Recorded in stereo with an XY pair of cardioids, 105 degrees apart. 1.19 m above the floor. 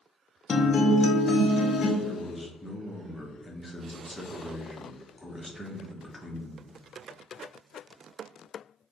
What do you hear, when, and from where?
0.5 s a guitar: 45° left, 0.6 m
2.0 s a man speaking: 5° left, 0.8 m